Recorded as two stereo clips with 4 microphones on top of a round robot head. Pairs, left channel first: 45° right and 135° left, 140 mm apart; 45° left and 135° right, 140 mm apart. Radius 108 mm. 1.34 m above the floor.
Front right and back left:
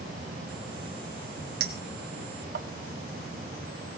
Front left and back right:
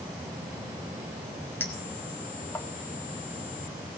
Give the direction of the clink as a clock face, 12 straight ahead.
8 o'clock.